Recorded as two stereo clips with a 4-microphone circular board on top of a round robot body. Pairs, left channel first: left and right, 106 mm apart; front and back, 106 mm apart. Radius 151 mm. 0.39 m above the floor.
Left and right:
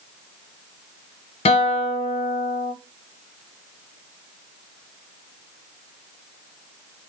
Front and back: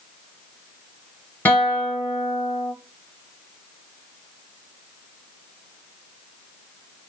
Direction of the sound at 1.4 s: 70° left.